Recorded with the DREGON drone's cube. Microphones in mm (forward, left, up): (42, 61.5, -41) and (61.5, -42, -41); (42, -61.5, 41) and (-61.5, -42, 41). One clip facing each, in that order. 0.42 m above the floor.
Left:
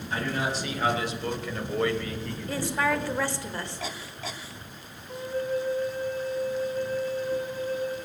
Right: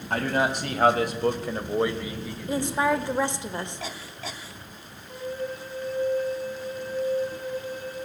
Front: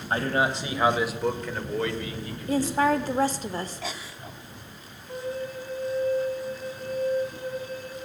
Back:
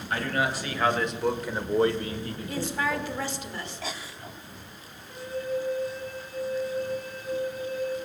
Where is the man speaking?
60° right, 2.5 m; by 3.1 s 175° left, 2.5 m.